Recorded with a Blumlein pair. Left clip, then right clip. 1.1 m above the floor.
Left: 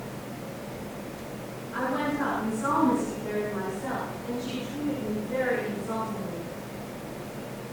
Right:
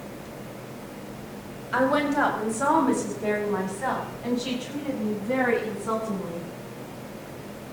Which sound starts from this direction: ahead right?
A woman speaking, at 1.7 s.